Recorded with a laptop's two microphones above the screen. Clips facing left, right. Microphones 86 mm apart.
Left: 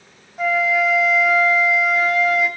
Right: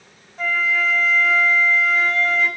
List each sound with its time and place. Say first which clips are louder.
0.4 s a flute: left 4 dB; 10° left (ahead or behind), 0.9 m